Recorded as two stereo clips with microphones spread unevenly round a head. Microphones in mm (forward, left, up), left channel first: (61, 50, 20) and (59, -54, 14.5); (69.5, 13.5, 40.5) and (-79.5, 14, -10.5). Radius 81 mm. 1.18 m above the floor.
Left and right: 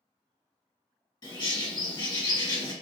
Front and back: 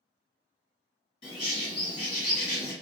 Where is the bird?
45° left, 1.4 m.